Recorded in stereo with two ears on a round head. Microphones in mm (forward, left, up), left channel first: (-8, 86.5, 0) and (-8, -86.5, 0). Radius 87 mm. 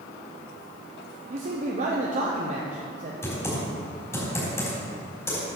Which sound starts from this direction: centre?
Typing on a keyboard, at 3.2 s.